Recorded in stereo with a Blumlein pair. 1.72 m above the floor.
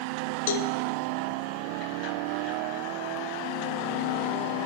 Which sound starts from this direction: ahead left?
A cowbell, at 0.5 s.